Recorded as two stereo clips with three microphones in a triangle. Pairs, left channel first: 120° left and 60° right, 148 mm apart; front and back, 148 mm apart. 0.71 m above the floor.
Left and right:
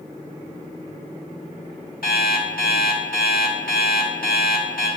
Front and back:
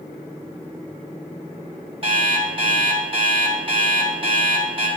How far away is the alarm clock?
About 1.5 m.